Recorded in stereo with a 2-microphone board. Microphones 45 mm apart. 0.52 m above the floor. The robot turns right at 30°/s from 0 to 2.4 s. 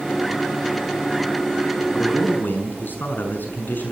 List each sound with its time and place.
1.9 s a man speaking: 35° left (ahead or behind), 6 m; by 3.9 s 50° left (ahead or behind), 6 m